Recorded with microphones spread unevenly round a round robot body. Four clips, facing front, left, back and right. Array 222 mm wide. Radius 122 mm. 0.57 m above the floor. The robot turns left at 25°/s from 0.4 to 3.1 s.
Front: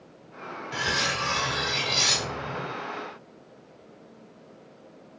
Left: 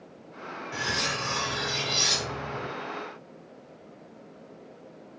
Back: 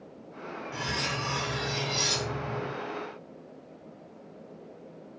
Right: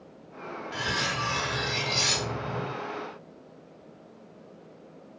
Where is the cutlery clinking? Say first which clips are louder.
Right 1 dB, front 5 dB; 10° left, 1.3 m; by 2.7 s 40° right, 1.3 m.